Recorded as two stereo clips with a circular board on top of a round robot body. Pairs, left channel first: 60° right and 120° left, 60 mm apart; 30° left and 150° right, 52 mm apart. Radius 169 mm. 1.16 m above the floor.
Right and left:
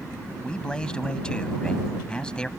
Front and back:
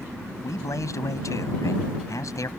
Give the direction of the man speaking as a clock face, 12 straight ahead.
11 o'clock.